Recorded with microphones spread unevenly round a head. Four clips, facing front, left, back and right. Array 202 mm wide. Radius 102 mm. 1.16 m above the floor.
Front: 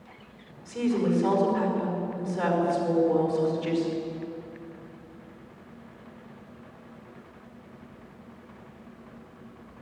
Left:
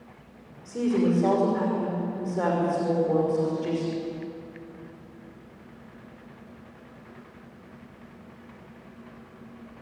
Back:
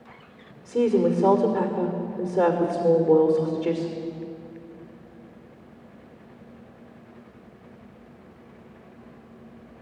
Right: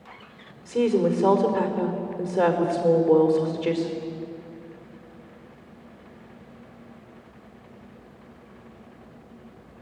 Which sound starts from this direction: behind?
A woman speaking, at 0.7 s.